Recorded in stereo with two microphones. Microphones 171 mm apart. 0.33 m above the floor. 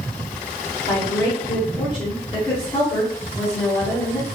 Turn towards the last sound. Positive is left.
turn(degrees=25)  # may be behind; listen again after turning